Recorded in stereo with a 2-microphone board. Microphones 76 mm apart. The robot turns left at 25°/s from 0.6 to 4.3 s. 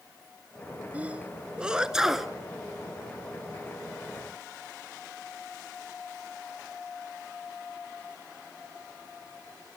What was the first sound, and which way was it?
A sneeze, 20° right (ahead or behind).